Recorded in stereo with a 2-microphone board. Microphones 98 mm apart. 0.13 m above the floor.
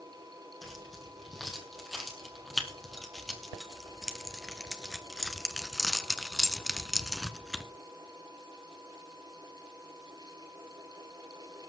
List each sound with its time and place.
0.6 s keys jangling: centre (ahead or behind), 4.5 m